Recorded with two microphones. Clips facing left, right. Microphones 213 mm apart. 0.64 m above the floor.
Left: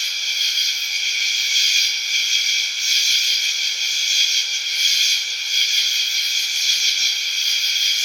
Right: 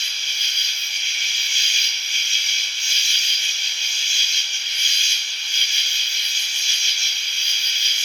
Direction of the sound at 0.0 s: 40° left (ahead or behind).